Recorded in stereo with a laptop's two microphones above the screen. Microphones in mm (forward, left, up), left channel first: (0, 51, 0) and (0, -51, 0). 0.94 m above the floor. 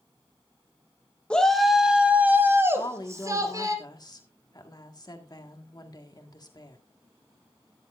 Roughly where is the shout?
Centre.